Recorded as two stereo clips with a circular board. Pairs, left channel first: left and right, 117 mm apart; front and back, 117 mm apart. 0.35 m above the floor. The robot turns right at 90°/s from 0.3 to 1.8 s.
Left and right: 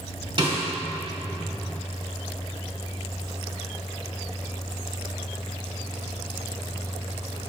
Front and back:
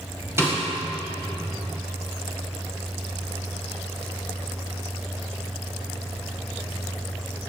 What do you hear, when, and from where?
0.4 s a snare drum: 115° right, 1.9 m; by 0.7 s 90° right, 1.9 m